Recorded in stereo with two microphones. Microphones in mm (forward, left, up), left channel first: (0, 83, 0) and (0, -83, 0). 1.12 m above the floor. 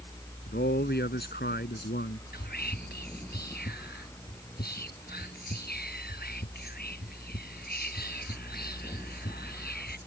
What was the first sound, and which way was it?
A man speaking, 70° left (ahead or behind).